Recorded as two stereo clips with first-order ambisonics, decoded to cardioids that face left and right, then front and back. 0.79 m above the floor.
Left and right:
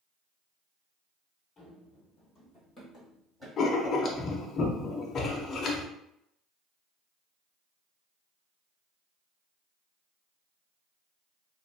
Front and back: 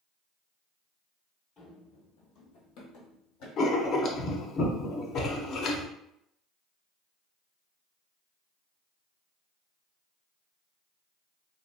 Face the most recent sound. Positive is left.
turn(degrees=40)